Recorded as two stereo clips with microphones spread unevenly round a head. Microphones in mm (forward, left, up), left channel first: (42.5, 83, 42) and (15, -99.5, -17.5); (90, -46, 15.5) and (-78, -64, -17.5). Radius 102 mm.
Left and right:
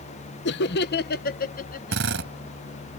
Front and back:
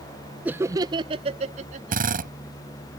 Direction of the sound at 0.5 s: 115° left.